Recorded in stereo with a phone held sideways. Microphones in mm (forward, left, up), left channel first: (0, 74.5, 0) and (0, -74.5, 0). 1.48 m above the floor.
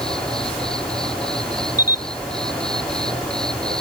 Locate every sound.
0.0 s an insect: 5° left (ahead or behind)
1.8 s a camera shutter: 25° left (ahead or behind)